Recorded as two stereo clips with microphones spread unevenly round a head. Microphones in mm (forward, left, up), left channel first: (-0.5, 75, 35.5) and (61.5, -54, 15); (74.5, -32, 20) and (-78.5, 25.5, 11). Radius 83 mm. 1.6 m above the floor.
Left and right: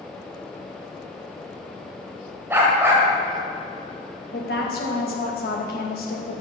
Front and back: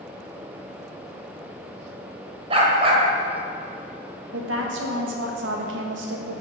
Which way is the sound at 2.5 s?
145° right.